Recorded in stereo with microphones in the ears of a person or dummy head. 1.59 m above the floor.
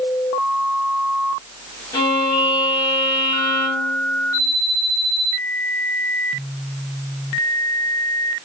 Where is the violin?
20° left (ahead or behind), 2.5 m.